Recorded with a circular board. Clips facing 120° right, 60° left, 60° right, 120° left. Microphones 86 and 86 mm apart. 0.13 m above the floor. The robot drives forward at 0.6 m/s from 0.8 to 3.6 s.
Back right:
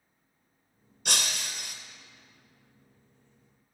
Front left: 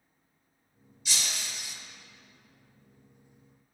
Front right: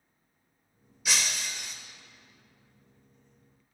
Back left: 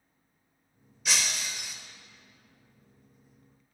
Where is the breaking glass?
145° right, 1.8 m; by 1.8 s 150° right, 2 m.